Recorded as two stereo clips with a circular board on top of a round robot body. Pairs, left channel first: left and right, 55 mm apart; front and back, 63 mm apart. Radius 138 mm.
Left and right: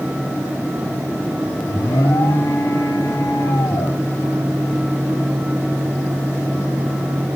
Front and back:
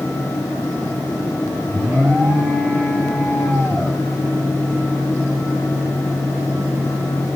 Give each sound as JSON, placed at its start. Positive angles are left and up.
{"t": 1.6, "sound": "an alarm", "azimuth_deg": 85, "distance_m": 8.5}